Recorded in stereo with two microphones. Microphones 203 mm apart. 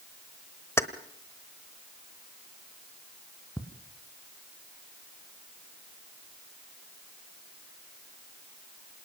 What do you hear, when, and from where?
0.8 s keys jangling: 15° left (ahead or behind), 0.9 m
3.6 s ticking: 15° left (ahead or behind), 2.5 m